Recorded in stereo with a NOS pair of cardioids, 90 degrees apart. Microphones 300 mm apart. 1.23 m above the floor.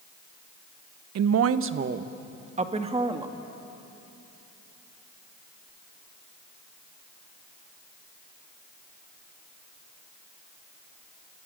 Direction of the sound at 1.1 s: 60° right.